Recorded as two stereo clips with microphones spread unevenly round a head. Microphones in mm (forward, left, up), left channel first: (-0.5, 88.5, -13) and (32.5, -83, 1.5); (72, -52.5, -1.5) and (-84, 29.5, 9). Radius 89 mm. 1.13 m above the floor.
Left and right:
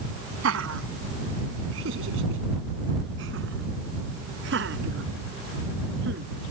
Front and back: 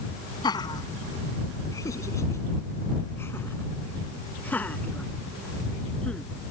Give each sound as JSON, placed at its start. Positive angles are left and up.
{"t": 0.4, "sound": "laughter", "azimuth_deg": -95}